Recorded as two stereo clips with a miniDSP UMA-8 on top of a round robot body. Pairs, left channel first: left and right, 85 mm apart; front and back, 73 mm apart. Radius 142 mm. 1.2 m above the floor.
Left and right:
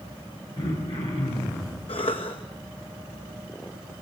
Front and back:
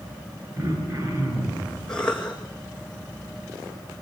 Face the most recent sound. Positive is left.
turn(degrees=80)